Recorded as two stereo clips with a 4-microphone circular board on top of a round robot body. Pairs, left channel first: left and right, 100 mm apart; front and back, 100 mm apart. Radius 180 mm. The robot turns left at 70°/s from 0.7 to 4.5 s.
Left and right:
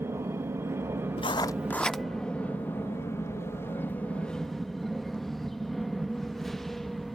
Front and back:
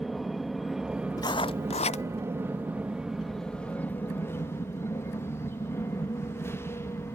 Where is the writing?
55° left; by 2.0 s 5° right.